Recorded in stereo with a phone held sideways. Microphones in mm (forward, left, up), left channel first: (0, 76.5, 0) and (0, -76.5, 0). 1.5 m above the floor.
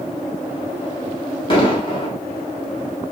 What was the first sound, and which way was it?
An explosion, 35° left (ahead or behind).